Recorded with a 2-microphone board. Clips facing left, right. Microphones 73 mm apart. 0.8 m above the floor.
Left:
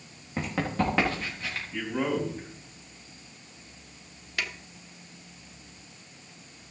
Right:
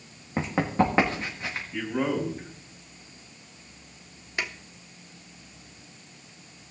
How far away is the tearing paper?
No tearing paper in this recording.